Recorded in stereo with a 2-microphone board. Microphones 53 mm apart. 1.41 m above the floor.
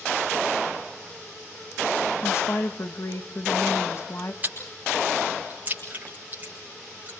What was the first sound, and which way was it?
A woman speaking, 50° left (ahead or behind).